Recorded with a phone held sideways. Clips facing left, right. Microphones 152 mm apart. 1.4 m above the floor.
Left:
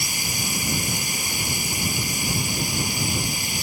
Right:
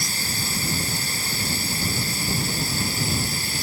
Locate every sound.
0.0 s running water: 15° left (ahead or behind)